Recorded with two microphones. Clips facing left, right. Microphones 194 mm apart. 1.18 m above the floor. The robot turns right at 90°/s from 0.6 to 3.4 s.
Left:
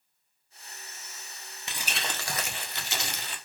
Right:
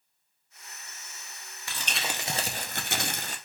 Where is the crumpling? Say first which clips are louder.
Right 1 dB; 155° left, 0.6 m; by 3.4 s 55° right, 0.6 m.